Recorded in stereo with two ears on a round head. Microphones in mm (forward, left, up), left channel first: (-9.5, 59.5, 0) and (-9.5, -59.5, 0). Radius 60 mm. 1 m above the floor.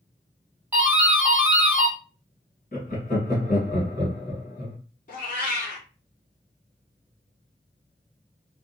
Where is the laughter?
55° left (ahead or behind), 1.5 m.